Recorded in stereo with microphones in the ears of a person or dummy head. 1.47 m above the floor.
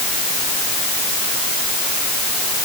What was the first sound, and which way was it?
Only background noise.